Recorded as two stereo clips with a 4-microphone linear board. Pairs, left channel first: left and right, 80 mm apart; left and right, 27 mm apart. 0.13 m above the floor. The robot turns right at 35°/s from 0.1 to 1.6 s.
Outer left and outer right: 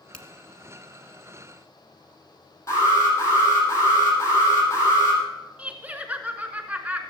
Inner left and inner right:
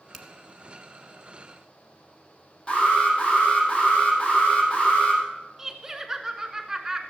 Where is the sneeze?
I don't hear a sneeze.